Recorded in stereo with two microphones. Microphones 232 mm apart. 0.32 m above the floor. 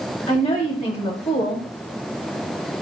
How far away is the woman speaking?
About 1.2 m.